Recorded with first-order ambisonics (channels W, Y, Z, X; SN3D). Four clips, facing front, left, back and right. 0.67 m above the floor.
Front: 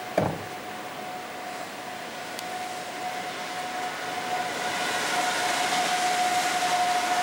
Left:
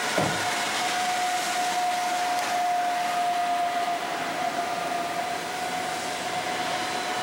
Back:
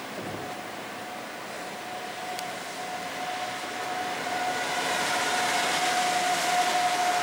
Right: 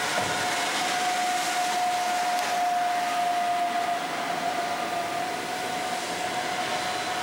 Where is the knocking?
20° left, 3 m.